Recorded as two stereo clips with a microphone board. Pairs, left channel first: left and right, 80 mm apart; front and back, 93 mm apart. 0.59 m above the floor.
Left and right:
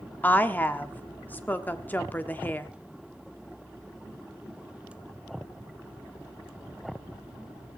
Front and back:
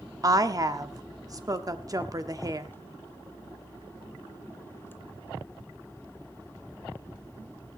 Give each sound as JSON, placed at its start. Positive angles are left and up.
{"t": 0.2, "sound": "a woman speaking", "azimuth_deg": 150, "distance_m": 1.2}